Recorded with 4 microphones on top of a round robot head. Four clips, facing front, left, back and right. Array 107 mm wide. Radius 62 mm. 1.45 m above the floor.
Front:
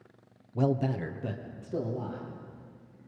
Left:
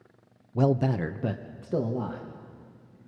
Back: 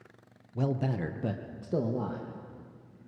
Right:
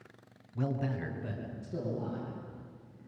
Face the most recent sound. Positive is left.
turn(degrees=130)